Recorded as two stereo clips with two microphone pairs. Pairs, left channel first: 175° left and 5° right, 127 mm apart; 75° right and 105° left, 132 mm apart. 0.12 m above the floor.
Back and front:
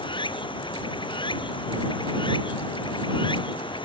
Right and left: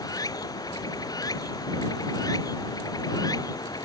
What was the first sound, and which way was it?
Running water, 135° right.